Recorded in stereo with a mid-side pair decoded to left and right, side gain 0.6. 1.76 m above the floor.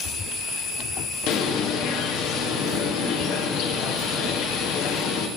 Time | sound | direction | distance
1.3 | a bird | 70° left | 1.4 m